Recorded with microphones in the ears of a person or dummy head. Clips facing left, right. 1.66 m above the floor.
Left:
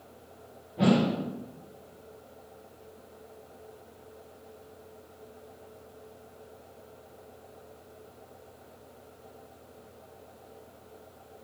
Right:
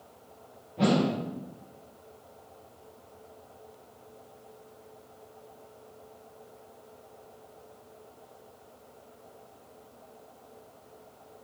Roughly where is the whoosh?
Centre.